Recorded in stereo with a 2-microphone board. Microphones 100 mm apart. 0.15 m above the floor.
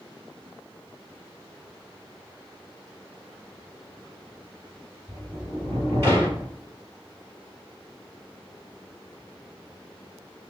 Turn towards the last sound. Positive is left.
turn(degrees=-25)  # may be behind; listen again after turning